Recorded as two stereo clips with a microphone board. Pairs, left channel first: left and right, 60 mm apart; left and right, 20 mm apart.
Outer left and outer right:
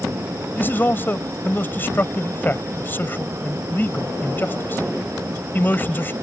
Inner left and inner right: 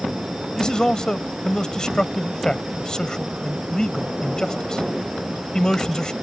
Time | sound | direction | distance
0.6 | a man speaking | 35° left (ahead or behind) | ?